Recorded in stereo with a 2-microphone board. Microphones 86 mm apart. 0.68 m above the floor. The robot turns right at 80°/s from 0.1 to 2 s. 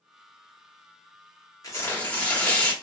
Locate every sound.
1.6 s tearing paper: 45° left (ahead or behind), 1.0 m; by 2.7 s 20° left (ahead or behind), 1.0 m